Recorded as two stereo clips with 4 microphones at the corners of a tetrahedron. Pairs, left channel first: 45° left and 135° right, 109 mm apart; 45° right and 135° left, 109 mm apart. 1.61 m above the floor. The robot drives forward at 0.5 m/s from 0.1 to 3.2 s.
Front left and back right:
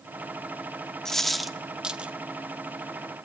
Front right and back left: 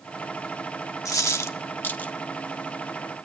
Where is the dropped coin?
35° right, 1.2 m; by 2.1 s 90° right, 1.1 m.